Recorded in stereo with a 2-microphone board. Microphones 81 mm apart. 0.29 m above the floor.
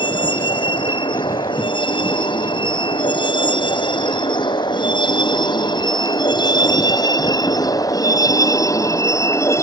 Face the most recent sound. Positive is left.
turn(degrees=35)  # may be behind; listen again after turning